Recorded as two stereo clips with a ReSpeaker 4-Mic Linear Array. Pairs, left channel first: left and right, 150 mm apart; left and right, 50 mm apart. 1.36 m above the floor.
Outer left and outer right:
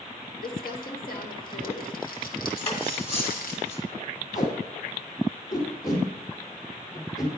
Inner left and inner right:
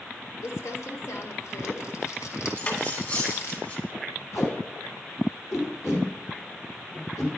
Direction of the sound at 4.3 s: 80° left.